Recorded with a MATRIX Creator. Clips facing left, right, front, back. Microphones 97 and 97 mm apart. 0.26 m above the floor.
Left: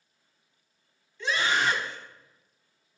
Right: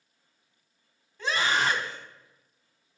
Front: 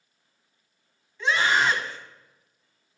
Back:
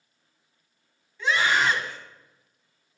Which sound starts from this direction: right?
A scream, at 1.2 s.